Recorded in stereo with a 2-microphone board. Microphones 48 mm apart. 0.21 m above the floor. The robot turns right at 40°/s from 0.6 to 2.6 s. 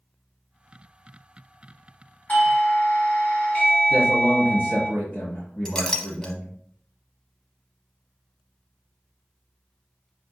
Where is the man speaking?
30° left (ahead or behind), 2 m.